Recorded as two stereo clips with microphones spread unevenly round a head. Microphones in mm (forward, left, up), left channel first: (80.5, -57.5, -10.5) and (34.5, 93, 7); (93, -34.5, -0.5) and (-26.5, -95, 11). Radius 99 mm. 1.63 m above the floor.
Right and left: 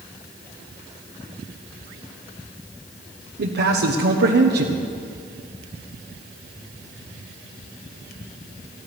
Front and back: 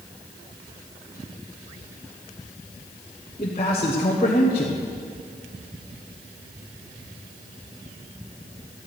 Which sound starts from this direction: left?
A man speaking, at 3.4 s.